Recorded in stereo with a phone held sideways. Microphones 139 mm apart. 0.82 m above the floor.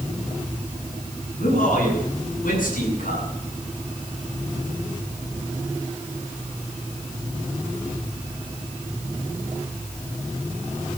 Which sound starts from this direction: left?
A man speaking, at 1.4 s.